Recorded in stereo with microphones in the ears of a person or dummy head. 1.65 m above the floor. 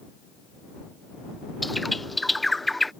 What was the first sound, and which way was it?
A bird, centre (ahead or behind).